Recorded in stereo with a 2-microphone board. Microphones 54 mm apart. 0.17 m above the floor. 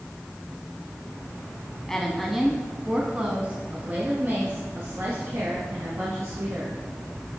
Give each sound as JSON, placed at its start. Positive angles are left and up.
{"t": 1.9, "sound": "a woman speaking", "side_deg": 10, "distance_m": 1.1}